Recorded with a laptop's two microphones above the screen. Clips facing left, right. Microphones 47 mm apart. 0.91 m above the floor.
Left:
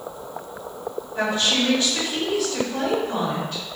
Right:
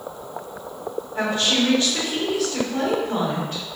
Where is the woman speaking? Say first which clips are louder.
Right 1 dB; 30° right (ahead or behind), 1.7 m.